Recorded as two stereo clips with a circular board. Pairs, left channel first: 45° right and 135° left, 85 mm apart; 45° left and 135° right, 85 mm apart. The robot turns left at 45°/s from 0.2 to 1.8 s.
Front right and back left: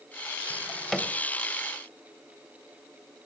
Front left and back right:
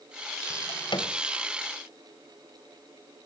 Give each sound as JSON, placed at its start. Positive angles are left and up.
{"t": 0.5, "sound": "a drawer", "azimuth_deg": 55, "distance_m": 2.0}